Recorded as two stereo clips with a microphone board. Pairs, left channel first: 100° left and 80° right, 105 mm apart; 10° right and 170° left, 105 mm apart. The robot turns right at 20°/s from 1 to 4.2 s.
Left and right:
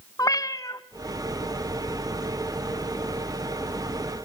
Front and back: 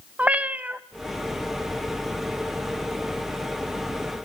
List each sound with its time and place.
0.2 s a cat meowing: 100° left, 0.6 m